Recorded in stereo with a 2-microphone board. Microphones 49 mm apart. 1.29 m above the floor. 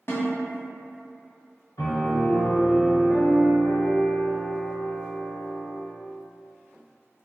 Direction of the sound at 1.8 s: 70° left (ahead or behind).